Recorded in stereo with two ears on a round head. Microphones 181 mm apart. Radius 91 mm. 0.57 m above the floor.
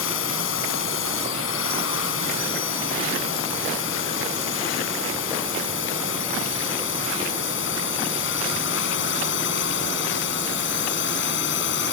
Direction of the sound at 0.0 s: 65° left (ahead or behind).